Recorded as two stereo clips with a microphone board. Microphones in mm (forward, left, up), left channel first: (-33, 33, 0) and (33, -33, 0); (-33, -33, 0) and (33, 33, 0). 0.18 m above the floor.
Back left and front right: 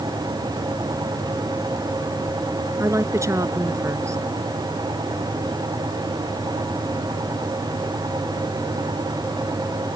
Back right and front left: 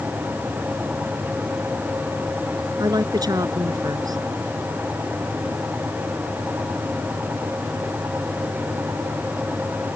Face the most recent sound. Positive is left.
turn(degrees=5)